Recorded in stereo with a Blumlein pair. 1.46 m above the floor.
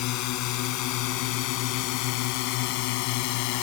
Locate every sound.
0.0 s a drone: 40° left; by 3.6 s 45° left